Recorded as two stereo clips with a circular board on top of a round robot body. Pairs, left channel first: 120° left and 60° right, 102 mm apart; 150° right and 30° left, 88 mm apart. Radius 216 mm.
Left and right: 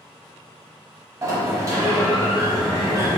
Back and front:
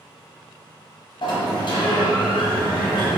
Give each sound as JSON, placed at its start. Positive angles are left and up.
{"t": 1.2, "sound": "a sliding door", "azimuth_deg": -120, "distance_m": 0.9}